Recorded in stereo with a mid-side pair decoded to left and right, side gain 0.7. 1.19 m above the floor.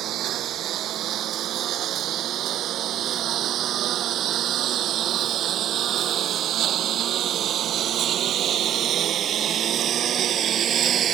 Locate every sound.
0.0 s a lawn mower: 50° right; by 11.2 s 40° right